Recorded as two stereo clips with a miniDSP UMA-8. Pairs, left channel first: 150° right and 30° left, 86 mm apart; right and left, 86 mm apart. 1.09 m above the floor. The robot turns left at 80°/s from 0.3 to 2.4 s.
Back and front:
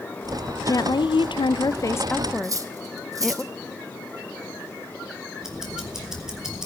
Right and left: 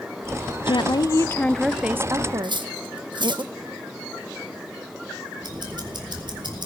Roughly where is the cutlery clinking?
Left.